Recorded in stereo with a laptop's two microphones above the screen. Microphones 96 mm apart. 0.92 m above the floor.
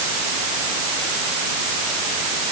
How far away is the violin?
I don't hear a violin.